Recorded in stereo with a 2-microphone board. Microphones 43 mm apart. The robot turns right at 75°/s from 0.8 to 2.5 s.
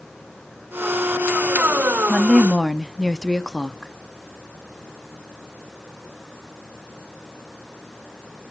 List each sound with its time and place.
2.1 s a woman speaking: 10° right, 0.7 m; by 3.9 s 25° left, 0.7 m